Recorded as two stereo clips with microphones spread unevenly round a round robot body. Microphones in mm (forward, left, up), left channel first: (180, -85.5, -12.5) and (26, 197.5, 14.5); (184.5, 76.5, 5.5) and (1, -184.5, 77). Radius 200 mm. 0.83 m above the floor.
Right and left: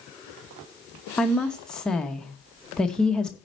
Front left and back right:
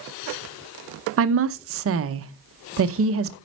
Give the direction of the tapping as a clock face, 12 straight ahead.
No tapping in this recording.